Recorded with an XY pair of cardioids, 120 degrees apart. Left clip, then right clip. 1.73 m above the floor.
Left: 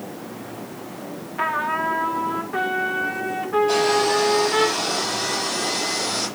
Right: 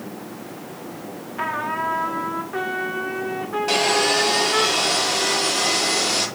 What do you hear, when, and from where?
1.4 s a trumpet: 5° left, 2 m
3.7 s sawing: 65° right, 6.5 m